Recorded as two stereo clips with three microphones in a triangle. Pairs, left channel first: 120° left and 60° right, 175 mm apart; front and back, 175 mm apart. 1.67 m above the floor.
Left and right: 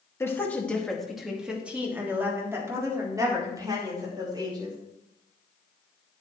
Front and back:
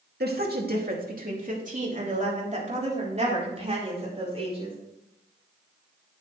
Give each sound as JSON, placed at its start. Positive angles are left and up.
{"t": 0.2, "sound": "a woman speaking", "azimuth_deg": -165, "distance_m": 2.0}